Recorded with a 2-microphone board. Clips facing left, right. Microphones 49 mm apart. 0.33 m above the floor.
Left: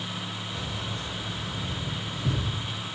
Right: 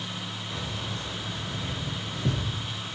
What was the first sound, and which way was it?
Keys jangling, 45° right (ahead or behind).